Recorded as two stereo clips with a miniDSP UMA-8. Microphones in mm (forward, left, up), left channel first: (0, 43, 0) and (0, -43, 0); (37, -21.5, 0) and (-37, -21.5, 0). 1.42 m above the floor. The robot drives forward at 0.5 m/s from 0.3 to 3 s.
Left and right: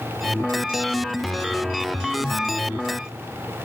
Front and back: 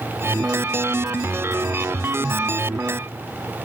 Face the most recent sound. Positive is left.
No sound to turn to.